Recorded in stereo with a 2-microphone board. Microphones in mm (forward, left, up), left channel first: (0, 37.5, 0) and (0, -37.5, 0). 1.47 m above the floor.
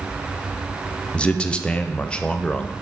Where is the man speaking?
15° left (ahead or behind), 0.5 m.